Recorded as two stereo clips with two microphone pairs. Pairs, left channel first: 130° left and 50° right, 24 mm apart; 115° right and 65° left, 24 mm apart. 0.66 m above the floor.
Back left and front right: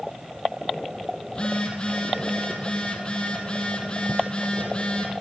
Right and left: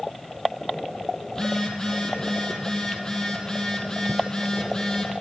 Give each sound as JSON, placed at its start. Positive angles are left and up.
{"t": 1.3, "sound": "a phone buzzing", "azimuth_deg": -175, "distance_m": 3.5}